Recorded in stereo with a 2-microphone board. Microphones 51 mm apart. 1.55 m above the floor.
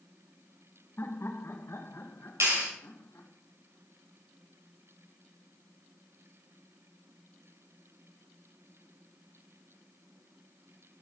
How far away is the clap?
About 5.5 m.